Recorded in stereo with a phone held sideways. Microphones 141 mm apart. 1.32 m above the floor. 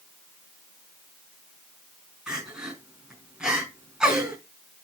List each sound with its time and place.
2.3 s crying: 5° right (ahead or behind), 5 m